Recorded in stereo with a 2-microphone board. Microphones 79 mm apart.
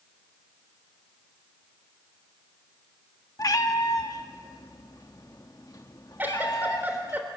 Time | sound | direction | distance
3.4 | a cat meowing | 50° left (ahead or behind) | 1.3 m
6.2 | a giggle | 25° right (ahead or behind) | 2.5 m